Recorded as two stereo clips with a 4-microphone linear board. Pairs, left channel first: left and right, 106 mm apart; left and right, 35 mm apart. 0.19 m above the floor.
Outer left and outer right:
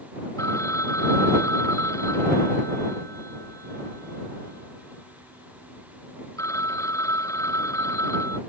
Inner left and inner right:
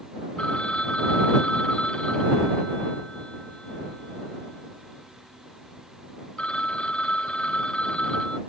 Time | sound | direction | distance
0.4 | a phone ringing | 30° left (ahead or behind) | ?